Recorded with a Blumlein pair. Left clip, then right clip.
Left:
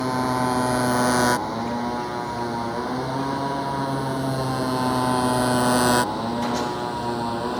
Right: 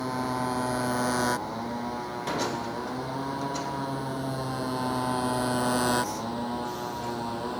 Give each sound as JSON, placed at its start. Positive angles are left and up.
{"t": 0.0, "sound": "a motorcycle", "azimuth_deg": 20}